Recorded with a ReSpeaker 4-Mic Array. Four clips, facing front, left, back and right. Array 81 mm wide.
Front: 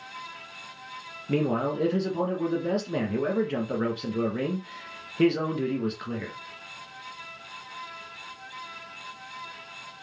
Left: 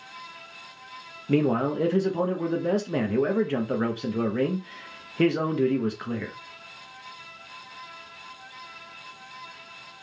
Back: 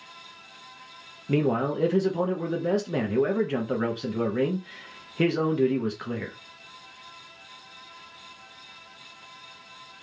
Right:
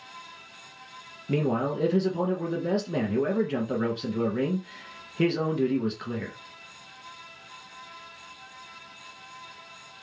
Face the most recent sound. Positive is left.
turn(degrees=115)